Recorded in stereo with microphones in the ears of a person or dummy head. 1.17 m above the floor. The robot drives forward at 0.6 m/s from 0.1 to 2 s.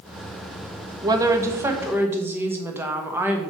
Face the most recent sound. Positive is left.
turn(degrees=-15)  # may be behind; listen again after turning